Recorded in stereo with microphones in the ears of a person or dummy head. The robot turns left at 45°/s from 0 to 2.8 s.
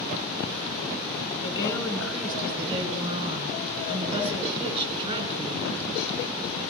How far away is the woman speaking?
About 7 m.